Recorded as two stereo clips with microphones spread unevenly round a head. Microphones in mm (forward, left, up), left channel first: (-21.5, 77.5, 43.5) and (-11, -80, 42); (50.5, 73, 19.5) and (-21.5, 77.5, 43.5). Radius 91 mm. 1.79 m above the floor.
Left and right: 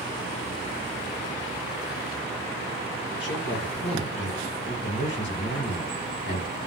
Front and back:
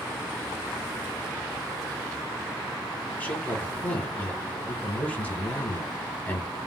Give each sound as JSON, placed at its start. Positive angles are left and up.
{"t": 3.2, "sound": "a man speaking", "azimuth_deg": 70, "distance_m": 2.5}